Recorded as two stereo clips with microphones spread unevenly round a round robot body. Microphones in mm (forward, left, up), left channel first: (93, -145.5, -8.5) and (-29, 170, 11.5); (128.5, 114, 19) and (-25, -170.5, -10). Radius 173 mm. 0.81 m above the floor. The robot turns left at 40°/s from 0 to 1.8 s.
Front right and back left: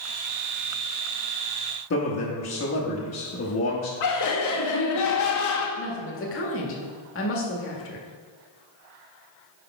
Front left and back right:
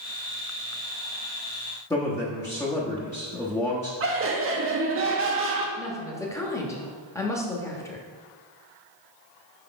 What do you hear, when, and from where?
1.9 s a man speaking: 20° right, 1.1 m
4.0 s laughter: 85° right, 1.5 m
5.8 s a woman speaking: 20° right, 1.3 m